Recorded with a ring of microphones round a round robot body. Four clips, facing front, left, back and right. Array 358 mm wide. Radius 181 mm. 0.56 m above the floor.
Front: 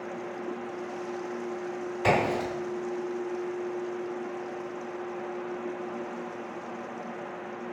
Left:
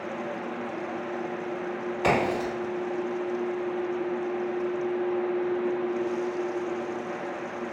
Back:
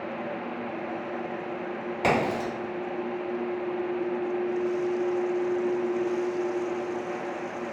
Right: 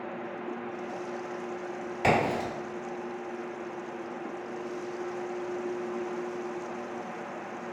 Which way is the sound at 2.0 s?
160° right.